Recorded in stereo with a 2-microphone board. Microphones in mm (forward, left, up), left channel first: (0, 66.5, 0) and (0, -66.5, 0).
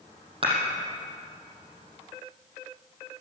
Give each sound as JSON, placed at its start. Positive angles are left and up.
{"t": 0.4, "sound": "dishes clattering", "side_deg": -40, "distance_m": 5.0}